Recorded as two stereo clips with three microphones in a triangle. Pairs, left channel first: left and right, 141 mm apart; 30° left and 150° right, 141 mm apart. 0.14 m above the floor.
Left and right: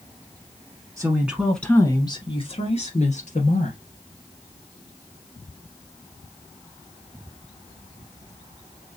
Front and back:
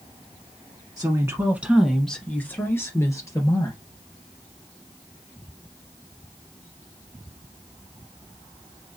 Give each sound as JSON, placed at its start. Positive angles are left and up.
{"t": 1.0, "sound": "a woman speaking", "azimuth_deg": -130, "distance_m": 1.1}